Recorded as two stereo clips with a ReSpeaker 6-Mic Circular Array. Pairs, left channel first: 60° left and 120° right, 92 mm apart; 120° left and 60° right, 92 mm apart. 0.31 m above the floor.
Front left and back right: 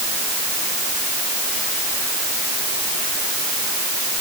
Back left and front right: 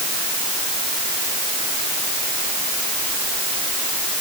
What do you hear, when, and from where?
Only background noise.